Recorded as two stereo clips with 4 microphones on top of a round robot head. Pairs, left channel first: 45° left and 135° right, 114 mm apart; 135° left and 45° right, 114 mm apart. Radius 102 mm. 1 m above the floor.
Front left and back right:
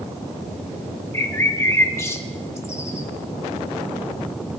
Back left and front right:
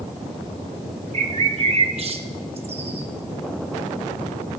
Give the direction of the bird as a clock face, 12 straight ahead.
1 o'clock.